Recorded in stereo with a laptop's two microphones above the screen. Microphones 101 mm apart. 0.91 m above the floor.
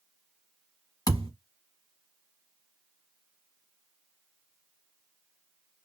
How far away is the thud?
About 1.2 m.